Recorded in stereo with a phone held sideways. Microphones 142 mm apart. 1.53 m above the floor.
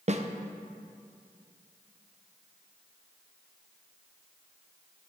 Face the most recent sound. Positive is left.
turn(degrees=-50)  # may be behind; listen again after turning